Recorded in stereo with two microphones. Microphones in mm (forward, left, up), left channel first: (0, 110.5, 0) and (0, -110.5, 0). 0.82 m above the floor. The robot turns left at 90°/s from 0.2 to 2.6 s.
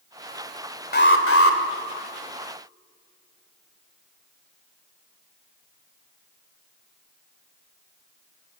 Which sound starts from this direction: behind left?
An alarm, at 0.9 s.